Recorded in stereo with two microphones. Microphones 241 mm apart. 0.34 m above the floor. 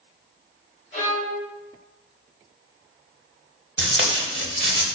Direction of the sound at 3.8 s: 50° right (ahead or behind).